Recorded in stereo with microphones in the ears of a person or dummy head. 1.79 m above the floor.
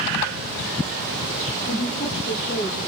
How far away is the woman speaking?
About 4 m.